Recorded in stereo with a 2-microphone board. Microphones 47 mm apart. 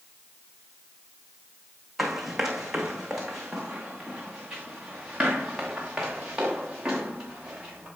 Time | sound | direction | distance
2.0 | running footsteps | 5° right (ahead or behind) | 3 m